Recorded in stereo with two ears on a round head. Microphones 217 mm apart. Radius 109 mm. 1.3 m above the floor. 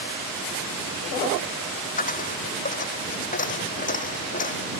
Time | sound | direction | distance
2.0 | a dropped coin | 35° left (ahead or behind) | ?